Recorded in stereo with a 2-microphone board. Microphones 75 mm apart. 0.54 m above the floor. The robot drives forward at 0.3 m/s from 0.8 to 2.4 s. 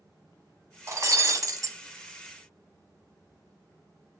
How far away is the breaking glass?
About 0.8 m.